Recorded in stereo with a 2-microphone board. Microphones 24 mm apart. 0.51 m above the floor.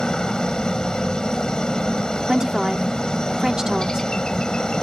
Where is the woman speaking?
25° right (ahead or behind).